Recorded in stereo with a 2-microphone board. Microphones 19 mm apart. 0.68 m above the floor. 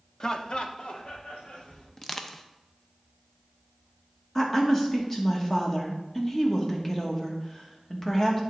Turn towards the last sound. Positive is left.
turn(degrees=15)  # may be behind; listen again after turning